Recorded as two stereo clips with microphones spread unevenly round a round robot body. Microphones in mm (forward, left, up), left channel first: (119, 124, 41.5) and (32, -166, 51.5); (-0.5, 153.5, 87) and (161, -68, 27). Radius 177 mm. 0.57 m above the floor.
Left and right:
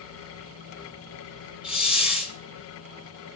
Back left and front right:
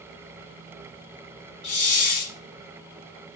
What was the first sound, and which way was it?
A hiss, 165° left.